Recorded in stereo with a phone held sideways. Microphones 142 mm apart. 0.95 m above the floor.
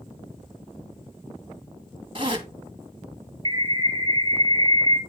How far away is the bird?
About 0.7 m.